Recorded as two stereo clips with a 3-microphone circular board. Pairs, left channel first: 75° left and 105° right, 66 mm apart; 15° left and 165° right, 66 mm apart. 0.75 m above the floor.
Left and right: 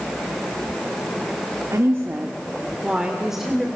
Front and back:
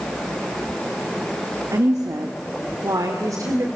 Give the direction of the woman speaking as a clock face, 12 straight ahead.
5 o'clock.